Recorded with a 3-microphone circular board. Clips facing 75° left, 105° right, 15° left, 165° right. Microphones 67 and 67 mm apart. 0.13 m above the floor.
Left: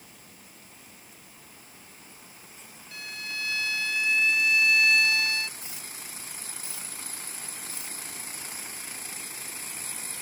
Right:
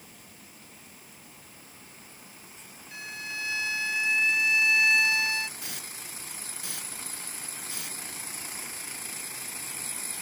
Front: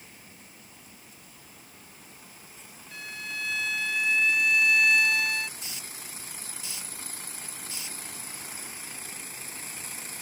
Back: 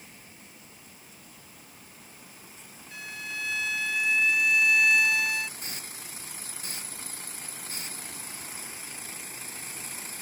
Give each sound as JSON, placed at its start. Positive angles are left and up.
{"t": 2.9, "sound": "a violin", "azimuth_deg": -80}
{"t": 5.6, "sound": "a hiss", "azimuth_deg": -120}